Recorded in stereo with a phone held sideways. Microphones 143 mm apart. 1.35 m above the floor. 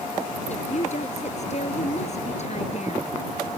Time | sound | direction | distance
0.5 | a woman speaking | 50° left (ahead or behind) | ?